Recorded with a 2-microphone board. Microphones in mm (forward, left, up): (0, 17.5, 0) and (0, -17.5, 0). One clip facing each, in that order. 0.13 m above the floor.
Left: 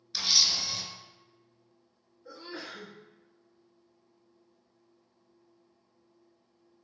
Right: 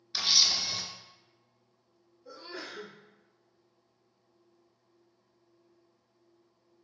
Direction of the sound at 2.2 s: 30° left (ahead or behind).